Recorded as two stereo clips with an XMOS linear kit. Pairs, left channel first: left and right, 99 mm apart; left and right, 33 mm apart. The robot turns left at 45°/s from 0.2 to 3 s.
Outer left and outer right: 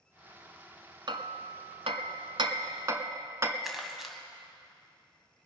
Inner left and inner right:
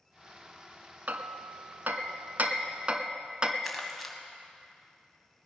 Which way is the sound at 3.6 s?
5° right (ahead or behind).